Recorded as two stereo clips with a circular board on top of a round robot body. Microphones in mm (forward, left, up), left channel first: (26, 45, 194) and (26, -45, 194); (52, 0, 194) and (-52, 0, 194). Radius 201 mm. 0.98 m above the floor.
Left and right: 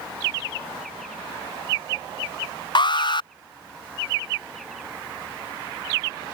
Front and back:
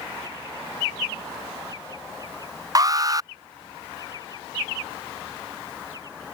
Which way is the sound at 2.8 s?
125° left.